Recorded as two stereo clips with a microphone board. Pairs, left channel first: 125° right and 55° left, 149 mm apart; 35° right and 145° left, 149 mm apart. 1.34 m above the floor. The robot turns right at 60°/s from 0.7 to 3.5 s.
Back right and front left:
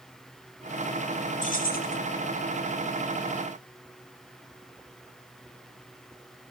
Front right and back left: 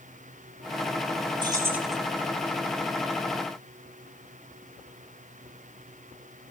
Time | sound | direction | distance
1.4 | keys jangling | 155° right | 2.5 m